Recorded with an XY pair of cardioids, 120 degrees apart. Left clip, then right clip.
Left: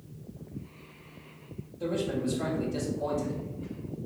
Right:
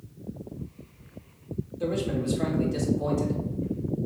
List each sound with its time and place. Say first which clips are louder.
1.8 s a man speaking: right 2 dB; 40° right, 3.5 m